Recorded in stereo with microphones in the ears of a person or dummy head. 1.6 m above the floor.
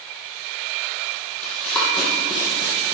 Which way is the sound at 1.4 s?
5° left (ahead or behind).